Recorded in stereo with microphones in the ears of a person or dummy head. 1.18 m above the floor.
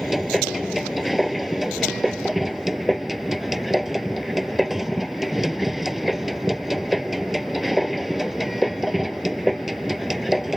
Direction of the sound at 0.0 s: Centre (ahead or behind).